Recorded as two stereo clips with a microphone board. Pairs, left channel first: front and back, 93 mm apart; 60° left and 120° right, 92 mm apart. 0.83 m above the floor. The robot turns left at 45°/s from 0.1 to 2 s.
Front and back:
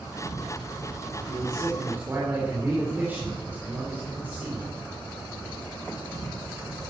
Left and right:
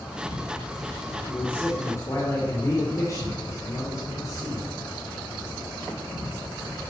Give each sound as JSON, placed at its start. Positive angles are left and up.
{"t": 0.0, "sound": "an insect", "azimuth_deg": 145, "distance_m": 7.5}
{"t": 1.3, "sound": "a man speaking", "azimuth_deg": 145, "distance_m": 3.5}